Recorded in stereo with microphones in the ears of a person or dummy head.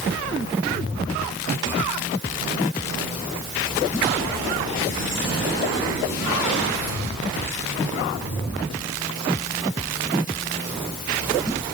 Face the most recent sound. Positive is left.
No sound to turn to.